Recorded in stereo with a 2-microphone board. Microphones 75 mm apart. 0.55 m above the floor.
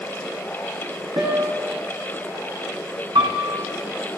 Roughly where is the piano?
Right.